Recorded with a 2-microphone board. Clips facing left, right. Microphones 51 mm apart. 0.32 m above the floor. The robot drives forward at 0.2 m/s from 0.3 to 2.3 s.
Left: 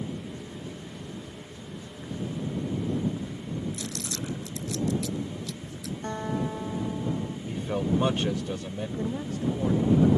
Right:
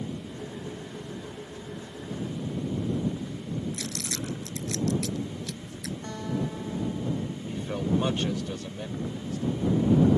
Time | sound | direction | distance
3.7 | crumpling | 60° right (ahead or behind) | ?
6.0 | a guitar | 30° left (ahead or behind) | ?
7.5 | a man speaking | 15° left (ahead or behind) | ?
9.0 | a woman speaking | 50° left (ahead or behind) | ?